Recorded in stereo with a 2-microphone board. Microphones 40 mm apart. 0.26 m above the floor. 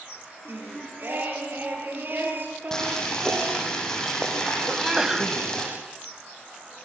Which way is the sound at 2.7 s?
15° left (ahead or behind).